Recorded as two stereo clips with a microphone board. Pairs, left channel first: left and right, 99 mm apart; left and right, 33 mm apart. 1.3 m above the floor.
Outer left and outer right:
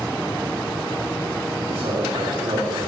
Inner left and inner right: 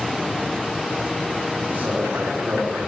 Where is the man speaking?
80° right, 3 m.